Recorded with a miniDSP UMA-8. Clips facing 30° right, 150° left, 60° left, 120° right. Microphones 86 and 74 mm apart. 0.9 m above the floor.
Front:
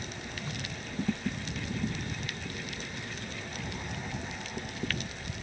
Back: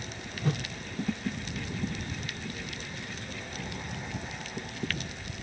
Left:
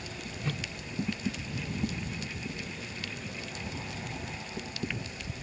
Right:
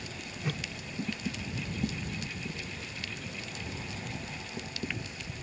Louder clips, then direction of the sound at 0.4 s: Back 11 dB, even; 160° left.